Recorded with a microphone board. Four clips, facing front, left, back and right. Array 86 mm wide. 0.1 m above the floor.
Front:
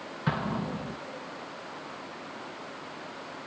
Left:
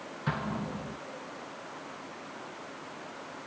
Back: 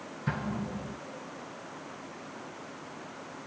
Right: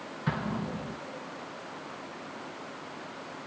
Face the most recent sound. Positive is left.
turn(degrees=5)